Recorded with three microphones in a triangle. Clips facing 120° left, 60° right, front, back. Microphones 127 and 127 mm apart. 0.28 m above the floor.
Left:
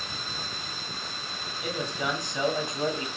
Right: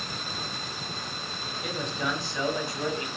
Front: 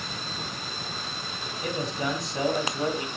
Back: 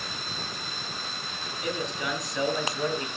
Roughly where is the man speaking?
Ahead left.